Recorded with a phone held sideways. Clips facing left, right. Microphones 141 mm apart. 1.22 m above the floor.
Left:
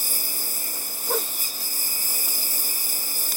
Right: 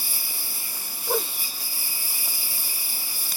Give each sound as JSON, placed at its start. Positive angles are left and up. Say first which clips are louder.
{"t": 0.0, "sound": "a lawn mower", "louder": "left 4 dB", "side_deg": 45}
{"t": 1.1, "sound": "a whoosh", "louder": "right 1 dB", "side_deg": -5}